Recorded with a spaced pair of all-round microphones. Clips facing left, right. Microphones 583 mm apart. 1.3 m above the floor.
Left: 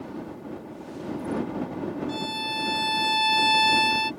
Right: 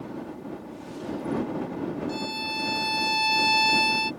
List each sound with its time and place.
2.1 s a violin: 40° left (ahead or behind)